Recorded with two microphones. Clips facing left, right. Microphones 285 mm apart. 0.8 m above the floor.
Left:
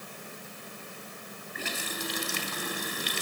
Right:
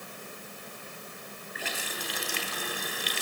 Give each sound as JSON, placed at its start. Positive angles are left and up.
{"t": 1.6, "sound": "a running tap", "side_deg": 45, "distance_m": 3.0}